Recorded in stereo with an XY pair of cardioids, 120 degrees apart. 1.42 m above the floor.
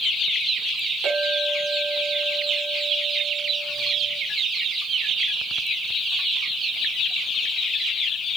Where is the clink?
50° right, 7 m.